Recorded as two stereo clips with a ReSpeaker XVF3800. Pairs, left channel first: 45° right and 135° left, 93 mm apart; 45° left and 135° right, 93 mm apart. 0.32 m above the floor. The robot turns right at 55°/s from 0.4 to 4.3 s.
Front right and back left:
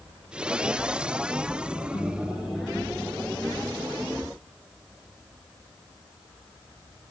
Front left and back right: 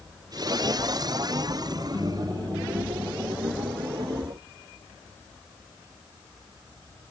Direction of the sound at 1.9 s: 15° right.